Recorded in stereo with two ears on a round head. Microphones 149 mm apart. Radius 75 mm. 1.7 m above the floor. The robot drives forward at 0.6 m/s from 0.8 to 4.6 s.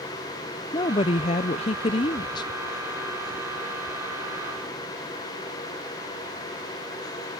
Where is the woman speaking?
25° left (ahead or behind).